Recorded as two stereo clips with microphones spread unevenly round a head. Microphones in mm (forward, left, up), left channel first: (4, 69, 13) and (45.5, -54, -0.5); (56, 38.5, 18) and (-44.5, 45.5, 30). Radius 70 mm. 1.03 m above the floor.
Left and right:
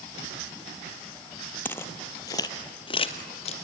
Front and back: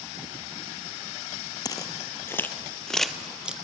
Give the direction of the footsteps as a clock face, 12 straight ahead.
11 o'clock.